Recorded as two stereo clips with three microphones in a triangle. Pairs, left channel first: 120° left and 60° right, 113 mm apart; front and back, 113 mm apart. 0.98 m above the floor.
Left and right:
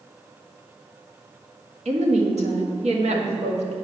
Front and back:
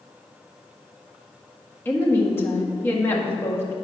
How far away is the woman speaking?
About 1.5 m.